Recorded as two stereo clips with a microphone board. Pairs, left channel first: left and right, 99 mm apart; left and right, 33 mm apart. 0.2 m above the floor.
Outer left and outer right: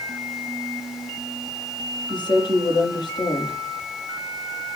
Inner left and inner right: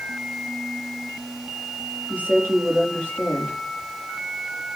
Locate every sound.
2.1 s a woman speaking: 45° left (ahead or behind), 5 m